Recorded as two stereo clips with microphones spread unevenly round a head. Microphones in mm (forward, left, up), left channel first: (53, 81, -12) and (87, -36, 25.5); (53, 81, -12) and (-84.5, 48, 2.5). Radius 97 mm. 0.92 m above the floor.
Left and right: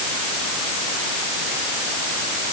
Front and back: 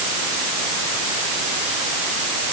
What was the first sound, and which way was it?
Only background noise.